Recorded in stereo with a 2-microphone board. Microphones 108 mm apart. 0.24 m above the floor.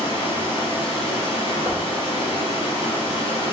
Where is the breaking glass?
No breaking glass in this recording.